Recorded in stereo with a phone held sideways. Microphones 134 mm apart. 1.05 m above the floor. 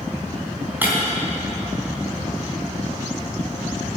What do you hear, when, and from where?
0.8 s breaking glass: 15° right (ahead or behind), 3.5 m